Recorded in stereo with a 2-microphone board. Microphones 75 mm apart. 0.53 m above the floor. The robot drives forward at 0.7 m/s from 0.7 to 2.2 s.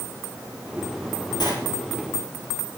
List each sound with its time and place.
1.4 s a sliding door: 65° left (ahead or behind), 2 m